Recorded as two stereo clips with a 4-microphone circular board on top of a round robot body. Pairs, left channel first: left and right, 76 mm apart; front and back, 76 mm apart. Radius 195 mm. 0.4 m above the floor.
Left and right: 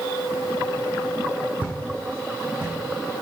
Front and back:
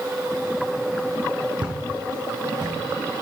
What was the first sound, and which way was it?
Footsteps, 160° right.